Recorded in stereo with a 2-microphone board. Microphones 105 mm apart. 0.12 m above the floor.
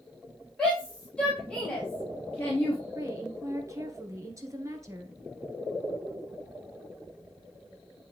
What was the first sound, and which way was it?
A shout, 10° left (ahead or behind).